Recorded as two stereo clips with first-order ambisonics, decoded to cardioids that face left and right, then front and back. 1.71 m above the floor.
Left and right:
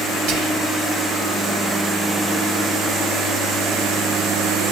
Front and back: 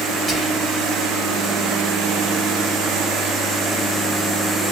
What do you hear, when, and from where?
0.3 s whispering: 100° right, 1.4 m